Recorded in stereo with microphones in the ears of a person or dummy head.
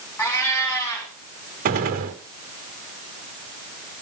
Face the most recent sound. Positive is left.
turn(degrees=-50)  # may be behind; listen again after turning